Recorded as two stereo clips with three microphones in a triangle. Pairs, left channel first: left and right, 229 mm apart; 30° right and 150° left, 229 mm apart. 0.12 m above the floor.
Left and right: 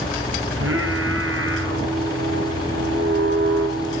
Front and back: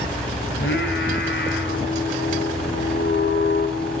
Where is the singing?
65° right, 8.5 m.